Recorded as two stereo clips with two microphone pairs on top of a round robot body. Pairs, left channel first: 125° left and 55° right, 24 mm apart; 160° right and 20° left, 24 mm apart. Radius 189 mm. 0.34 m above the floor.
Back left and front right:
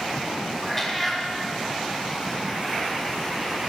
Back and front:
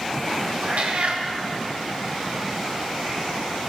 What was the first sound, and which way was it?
A cat meowing, 45° left.